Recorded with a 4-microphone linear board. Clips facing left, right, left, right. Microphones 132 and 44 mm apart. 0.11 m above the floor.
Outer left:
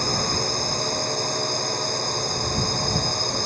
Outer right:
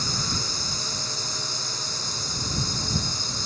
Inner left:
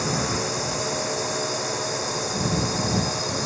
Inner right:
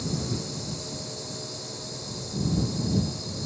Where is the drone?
55° left (ahead or behind); by 3.5 s 60° left (ahead or behind).